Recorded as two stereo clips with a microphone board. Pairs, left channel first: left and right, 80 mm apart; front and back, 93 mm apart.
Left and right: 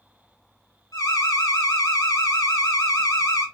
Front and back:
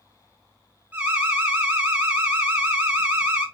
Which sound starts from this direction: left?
An alarm, at 0.9 s.